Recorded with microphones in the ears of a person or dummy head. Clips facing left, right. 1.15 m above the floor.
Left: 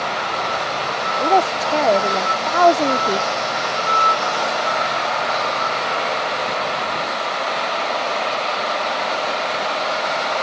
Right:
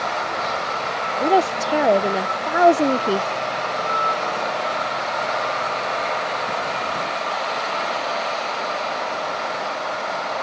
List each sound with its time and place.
1.2 s a woman speaking: 10° right (ahead or behind)